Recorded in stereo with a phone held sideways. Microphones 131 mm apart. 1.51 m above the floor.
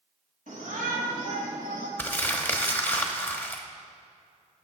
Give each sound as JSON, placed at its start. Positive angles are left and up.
{"t": 0.5, "sound": "a shout", "side_deg": -85, "distance_m": 4.0}
{"t": 2.0, "sound": "crumpling", "side_deg": 15, "distance_m": 1.1}